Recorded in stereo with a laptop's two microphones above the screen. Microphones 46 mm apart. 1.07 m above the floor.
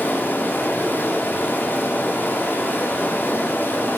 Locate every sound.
0.0 s running water: 50° left (ahead or behind), 1.7 m